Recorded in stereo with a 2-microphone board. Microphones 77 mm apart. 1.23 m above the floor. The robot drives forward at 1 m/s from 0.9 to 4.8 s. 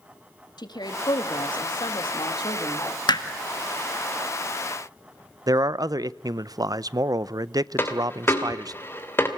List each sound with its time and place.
0.6 s a woman speaking: 65° left (ahead or behind), 2.5 m
3.1 s hammering: 70° left (ahead or behind), 1.9 m; by 3.2 s 75° left (ahead or behind), 1.8 m
5.5 s a man speaking: 55° right (ahead or behind), 0.5 m
7.8 s a dropped coin: 30° left (ahead or behind), 2.5 m